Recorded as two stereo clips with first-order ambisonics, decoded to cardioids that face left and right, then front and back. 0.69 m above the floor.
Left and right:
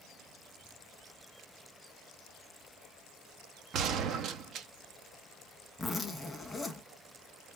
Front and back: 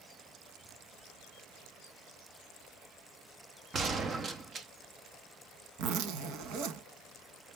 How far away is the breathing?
I don't hear breathing.